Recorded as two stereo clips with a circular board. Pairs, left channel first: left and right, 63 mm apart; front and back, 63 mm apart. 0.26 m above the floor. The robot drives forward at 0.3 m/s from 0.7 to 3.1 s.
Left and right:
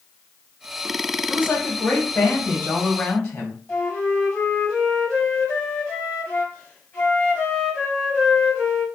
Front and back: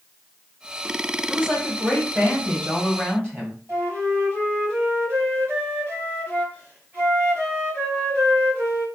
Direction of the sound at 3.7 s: 155° left.